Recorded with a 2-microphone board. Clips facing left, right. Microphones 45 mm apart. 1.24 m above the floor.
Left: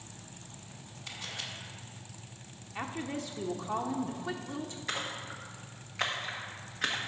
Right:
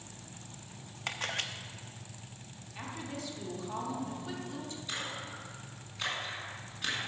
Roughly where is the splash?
Left.